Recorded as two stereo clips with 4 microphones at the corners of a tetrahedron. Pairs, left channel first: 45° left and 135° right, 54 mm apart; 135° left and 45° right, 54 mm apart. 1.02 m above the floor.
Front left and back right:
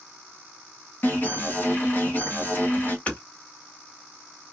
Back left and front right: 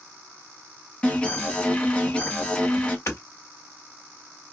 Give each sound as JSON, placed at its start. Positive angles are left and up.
{"t": 1.0, "sound": "an alarm", "azimuth_deg": 80, "distance_m": 1.7}
{"t": 3.1, "sound": "hammering", "azimuth_deg": 110, "distance_m": 2.5}